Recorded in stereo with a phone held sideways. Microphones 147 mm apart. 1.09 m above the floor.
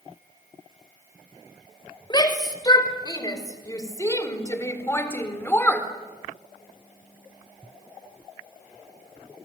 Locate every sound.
2.1 s a shout: 25° left (ahead or behind), 5 m; by 5.9 s 10° left (ahead or behind), 3.5 m